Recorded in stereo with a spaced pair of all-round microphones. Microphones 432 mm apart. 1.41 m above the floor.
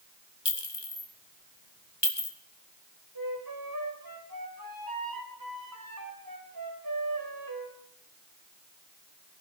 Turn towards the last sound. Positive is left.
turn(degrees=-55)  # may be behind; listen again after turning